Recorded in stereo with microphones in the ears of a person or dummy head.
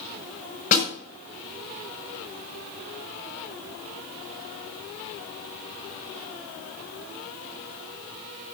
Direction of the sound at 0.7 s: 45° left (ahead or behind).